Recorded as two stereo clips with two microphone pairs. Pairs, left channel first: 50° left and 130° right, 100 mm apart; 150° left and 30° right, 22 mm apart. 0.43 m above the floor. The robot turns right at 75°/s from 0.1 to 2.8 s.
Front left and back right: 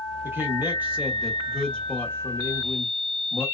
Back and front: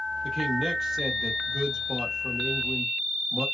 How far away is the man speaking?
About 0.8 m.